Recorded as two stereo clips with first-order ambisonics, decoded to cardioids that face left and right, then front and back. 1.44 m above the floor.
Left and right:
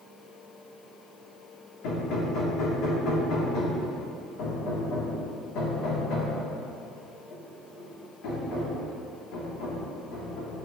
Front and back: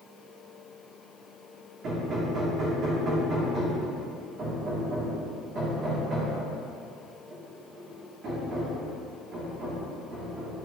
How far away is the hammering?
About 2 m.